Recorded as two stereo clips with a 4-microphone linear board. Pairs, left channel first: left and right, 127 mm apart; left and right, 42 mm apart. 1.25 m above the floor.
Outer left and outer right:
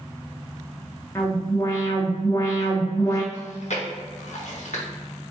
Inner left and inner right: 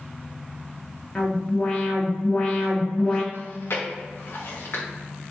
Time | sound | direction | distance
1.1 | an alarm | 25° left (ahead or behind) | 1.3 m
3.3 | chewing | 65° left (ahead or behind) | 1.1 m